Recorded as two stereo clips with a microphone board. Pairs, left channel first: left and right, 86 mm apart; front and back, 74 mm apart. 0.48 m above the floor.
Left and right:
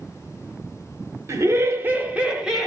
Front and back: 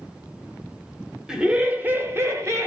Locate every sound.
1.3 s laughter: 105° right, 0.9 m; by 2.7 s 175° right, 1.0 m